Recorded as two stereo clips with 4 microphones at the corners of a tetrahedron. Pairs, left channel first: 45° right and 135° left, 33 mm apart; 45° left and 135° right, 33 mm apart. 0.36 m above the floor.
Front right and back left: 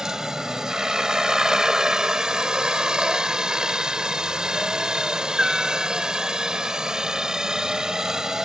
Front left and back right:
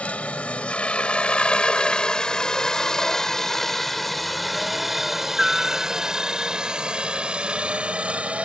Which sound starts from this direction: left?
A helicopter, at 0.0 s.